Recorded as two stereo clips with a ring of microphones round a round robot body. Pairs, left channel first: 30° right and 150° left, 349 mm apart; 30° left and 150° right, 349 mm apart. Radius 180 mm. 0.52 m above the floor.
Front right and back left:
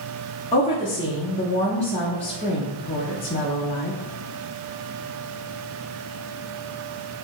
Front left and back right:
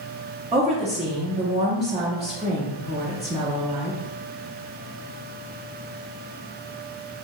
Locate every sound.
0.5 s a woman speaking: 90° right, 0.7 m